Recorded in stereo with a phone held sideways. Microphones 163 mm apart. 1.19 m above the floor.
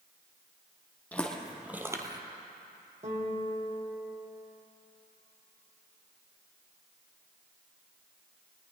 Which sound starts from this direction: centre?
Footsteps, at 1.1 s.